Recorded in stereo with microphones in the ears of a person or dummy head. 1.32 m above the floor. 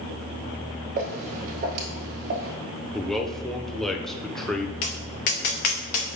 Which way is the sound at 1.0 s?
40° right (ahead or behind).